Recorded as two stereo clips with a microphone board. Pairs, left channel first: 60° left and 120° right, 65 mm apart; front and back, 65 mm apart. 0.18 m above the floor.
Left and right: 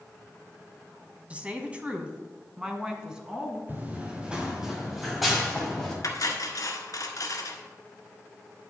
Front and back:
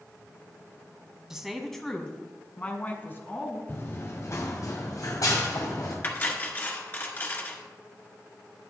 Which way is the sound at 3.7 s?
60° right.